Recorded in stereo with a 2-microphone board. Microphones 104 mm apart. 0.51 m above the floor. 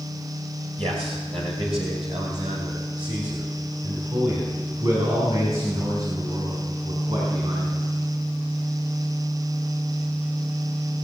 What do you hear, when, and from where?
0.8 s a man speaking: 65° right (ahead or behind), 2 m; by 7.7 s 55° right (ahead or behind), 5 m